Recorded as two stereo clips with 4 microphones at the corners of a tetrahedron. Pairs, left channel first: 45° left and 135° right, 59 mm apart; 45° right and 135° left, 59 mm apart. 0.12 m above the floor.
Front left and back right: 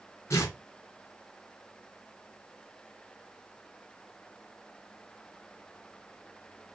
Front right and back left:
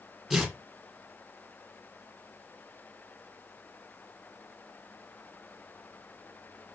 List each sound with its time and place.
0.3 s tearing paper: 50° left, 2.5 m